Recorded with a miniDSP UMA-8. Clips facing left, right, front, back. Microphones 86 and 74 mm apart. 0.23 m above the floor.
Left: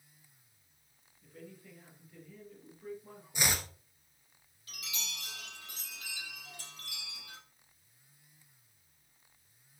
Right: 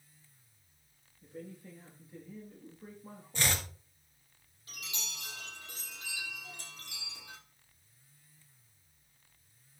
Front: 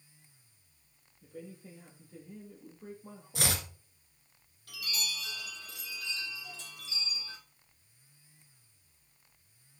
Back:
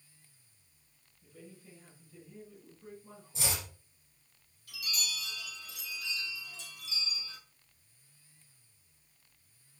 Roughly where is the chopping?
Ahead.